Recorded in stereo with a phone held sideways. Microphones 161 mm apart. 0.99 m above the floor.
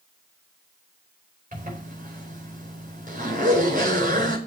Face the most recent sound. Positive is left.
turn(degrees=-55)  # may be behind; listen again after turning